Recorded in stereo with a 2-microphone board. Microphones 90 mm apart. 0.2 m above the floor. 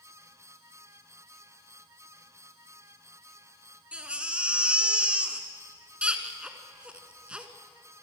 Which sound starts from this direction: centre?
A baby crying, at 3.9 s.